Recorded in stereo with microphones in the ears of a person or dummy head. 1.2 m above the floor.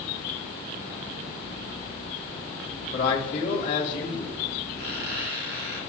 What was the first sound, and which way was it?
A man speaking, 45° left (ahead or behind).